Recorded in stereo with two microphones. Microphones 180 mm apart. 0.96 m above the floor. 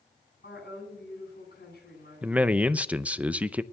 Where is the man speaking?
10° right (ahead or behind), 0.5 m.